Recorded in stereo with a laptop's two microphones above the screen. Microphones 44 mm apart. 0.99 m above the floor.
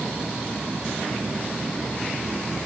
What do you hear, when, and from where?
Only background noise.